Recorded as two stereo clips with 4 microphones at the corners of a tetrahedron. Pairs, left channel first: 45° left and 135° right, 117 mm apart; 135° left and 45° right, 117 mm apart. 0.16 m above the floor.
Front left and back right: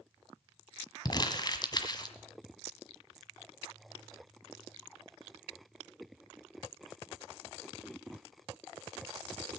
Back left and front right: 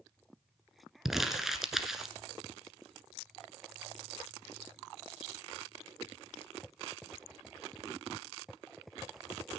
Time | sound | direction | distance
1.1 | crumpling | 40° left | 1.5 m